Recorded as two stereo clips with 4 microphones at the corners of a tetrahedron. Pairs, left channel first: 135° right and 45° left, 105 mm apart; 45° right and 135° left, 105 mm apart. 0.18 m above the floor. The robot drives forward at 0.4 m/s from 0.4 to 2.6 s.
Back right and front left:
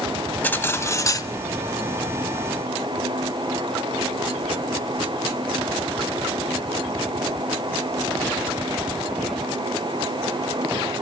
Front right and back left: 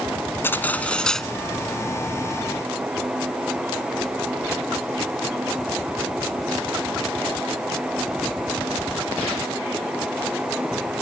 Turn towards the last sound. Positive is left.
turn(degrees=-155)